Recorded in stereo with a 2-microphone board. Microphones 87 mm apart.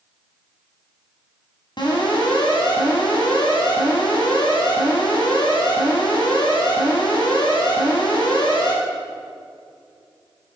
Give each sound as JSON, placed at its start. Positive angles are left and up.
{"t": 1.8, "sound": "an alarm", "side_deg": 55, "distance_m": 7.5}